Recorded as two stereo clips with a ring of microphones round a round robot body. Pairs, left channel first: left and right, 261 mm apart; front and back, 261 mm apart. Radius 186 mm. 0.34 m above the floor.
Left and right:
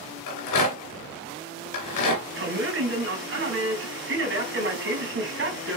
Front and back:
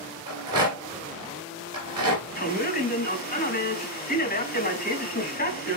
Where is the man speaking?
50° right, 3.5 m.